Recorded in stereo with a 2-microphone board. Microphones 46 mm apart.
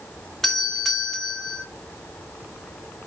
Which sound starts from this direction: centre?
A doorbell, at 0.4 s.